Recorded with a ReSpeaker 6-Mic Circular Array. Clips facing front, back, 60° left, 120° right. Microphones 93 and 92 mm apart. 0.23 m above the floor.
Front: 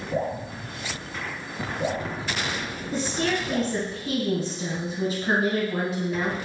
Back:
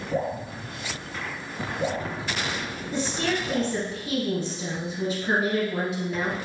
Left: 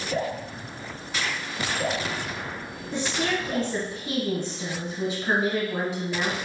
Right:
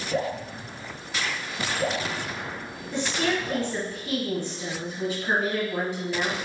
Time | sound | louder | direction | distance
0.1 | dripping | even, right 1 dB | 175° right | 1.7 m
2.9 | a woman speaking | front 1 dB, right 1 dB | 15° right | 1.2 m